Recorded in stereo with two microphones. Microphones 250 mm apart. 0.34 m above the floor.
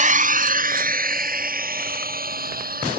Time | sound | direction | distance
0.0 | a drone | 30° right (ahead or behind) | ?